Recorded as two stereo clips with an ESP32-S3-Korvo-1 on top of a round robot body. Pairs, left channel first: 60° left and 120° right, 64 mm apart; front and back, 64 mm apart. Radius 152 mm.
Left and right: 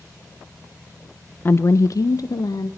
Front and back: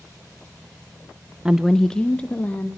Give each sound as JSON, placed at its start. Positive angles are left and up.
{"t": 1.4, "sound": "a woman speaking", "azimuth_deg": 105, "distance_m": 0.6}